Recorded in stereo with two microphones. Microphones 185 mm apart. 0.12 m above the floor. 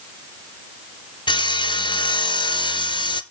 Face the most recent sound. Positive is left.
turn(degrees=25)  # may be behind; listen again after turning